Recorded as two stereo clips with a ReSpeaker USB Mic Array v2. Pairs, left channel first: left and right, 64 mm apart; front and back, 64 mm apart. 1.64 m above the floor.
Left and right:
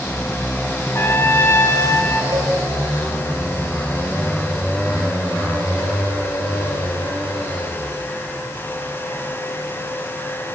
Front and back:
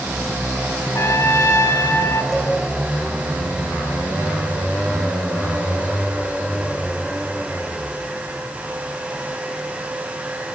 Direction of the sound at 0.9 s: 40° left.